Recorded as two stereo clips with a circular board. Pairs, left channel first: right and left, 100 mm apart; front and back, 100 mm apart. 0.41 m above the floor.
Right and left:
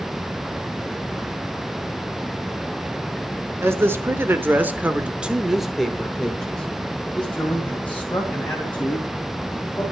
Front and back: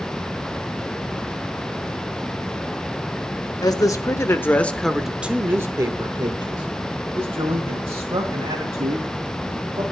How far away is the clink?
No clink in this recording.